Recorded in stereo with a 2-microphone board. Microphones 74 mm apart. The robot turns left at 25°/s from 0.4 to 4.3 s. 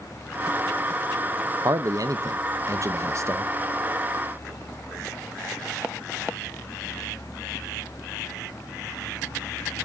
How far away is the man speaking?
About 0.6 m.